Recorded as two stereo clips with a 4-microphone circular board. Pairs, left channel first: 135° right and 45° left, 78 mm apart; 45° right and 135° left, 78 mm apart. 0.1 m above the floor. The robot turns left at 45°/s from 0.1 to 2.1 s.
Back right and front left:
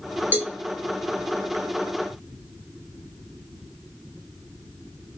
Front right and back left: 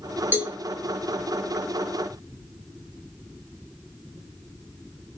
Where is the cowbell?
95° left, 1.7 m; by 0.6 s 85° left, 1.7 m.